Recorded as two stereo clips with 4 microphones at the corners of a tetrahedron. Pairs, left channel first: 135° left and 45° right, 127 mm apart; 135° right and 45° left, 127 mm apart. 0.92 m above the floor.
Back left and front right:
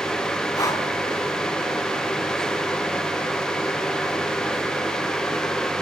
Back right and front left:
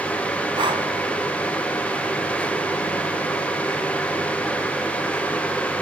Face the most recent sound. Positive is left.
turn(degrees=80)